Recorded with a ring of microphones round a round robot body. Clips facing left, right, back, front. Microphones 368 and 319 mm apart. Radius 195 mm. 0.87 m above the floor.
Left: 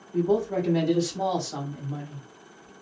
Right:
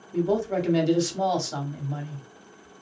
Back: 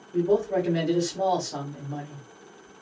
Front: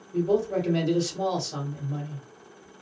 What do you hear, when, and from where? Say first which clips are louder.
0.1 s a man speaking: left 1 dB, back 1 dB; 75° right, 1.4 m